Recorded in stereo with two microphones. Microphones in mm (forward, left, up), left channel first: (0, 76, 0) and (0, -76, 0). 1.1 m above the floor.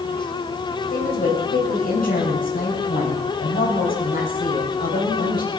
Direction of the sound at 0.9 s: 80° left.